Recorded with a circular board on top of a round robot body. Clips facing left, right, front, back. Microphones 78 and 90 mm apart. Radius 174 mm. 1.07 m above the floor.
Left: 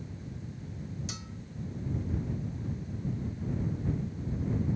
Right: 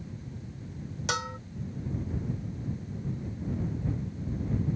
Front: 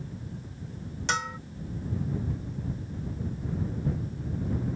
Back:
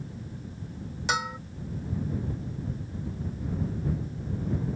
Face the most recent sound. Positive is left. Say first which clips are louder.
# right 12 dB, back 1 dB
turn(degrees=-100)